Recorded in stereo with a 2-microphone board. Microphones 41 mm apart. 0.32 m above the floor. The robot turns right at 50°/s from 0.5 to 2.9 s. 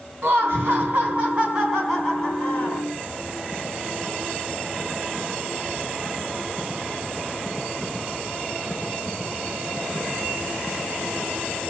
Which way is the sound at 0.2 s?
70° right.